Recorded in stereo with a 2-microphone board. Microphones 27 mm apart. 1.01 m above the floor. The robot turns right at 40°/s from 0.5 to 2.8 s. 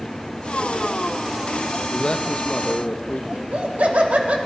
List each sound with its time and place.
1.9 s a man speaking: 35° left, 0.7 m; by 3.2 s 70° left, 0.7 m
3.3 s laughter: 75° right (ahead or behind), 1.8 m